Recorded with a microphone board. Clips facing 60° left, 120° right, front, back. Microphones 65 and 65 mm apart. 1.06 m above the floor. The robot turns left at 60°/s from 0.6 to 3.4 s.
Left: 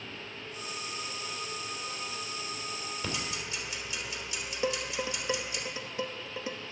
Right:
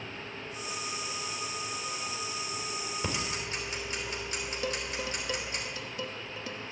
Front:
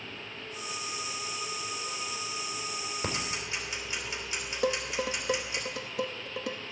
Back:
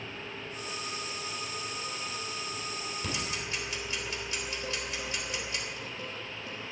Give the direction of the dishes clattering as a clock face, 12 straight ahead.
12 o'clock.